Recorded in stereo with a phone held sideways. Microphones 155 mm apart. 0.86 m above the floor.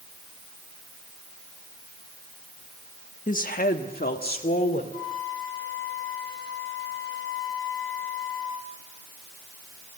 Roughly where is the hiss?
No hiss in this recording.